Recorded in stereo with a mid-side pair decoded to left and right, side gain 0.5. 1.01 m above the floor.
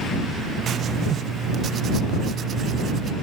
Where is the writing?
50° right.